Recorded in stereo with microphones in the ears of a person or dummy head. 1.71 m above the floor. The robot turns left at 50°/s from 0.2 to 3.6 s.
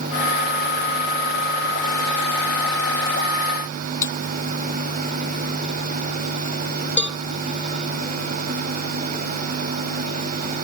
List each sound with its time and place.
4.0 s breaking glass: 15° left (ahead or behind)
7.0 s a cowbell: 5° right (ahead or behind)